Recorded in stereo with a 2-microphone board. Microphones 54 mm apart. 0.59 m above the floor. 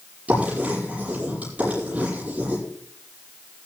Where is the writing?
25° right (ahead or behind), 10 m.